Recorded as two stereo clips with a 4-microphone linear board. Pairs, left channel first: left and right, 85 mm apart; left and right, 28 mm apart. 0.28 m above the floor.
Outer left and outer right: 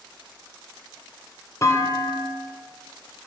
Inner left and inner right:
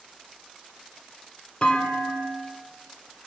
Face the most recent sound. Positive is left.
turn(degrees=35)  # may be behind; listen again after turning